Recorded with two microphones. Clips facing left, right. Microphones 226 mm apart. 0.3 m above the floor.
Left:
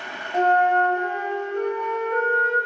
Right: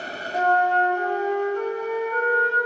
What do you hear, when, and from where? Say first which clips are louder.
0.3 s a flute: left 2 dB; 25° left (ahead or behind), 1.7 m